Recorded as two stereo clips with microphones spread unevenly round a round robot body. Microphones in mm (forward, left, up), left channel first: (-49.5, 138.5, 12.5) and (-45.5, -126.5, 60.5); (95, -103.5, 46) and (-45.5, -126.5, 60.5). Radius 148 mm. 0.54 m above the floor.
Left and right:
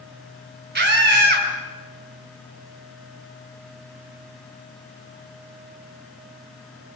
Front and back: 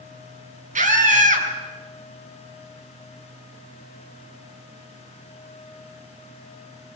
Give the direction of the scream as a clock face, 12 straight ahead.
5 o'clock.